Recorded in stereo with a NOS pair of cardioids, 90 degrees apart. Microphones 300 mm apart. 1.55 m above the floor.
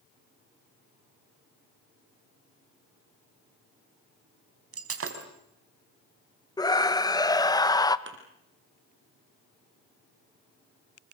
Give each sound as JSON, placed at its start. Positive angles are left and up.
{"t": 4.7, "sound": "breaking glass", "azimuth_deg": -50, "distance_m": 4.5}
{"t": 6.6, "sound": "a scream", "azimuth_deg": 15, "distance_m": 1.8}
{"t": 8.1, "sound": "a thud", "azimuth_deg": -40, "distance_m": 5.0}